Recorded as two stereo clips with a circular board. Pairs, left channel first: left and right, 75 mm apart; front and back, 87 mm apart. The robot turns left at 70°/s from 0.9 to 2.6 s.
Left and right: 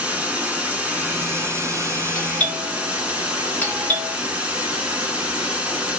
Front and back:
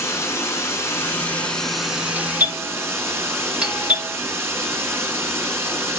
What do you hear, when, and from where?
0.0 s running water: 30° right, 0.9 m; by 6.0 s 150° right, 0.9 m
2.1 s a doorbell: 155° left, 1.5 m; by 4.1 s 120° left, 1.5 m